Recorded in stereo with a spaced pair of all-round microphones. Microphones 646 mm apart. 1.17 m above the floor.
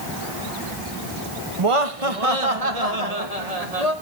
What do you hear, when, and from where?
1.6 s laughter: 50° right (ahead or behind), 1.2 m; by 3.9 s 70° right (ahead or behind), 3 m